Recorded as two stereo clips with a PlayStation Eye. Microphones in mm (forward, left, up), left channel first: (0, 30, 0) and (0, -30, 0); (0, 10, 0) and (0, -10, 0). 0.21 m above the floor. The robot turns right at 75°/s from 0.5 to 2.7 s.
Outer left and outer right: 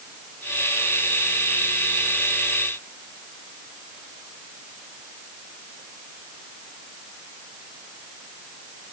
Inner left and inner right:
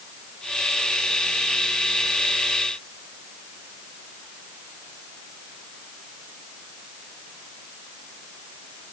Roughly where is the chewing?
No chewing in this recording.